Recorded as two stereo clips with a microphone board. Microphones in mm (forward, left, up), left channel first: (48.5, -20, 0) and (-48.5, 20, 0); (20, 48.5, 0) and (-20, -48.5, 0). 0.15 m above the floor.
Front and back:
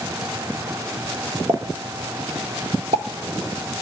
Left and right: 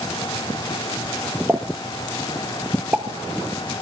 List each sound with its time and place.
1.5 s a pop: 170° left, 1.5 m